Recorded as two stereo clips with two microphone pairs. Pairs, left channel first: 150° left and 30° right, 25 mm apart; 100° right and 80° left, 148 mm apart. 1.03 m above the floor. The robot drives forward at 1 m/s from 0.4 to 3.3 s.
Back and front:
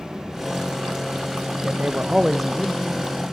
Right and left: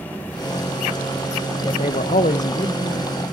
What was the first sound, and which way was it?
A man speaking, 45° right.